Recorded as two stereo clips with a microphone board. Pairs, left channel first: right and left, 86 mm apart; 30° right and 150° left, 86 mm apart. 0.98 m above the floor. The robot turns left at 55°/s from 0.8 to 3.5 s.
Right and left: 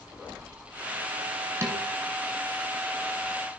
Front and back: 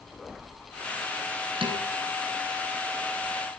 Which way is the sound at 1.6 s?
145° left.